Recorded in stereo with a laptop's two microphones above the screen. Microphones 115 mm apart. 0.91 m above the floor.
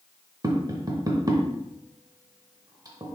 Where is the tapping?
35° right (ahead or behind), 0.7 m.